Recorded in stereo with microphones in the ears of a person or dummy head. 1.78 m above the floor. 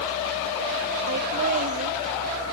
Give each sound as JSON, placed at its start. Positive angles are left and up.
{"t": 1.1, "sound": "laughter", "side_deg": -45, "distance_m": 0.8}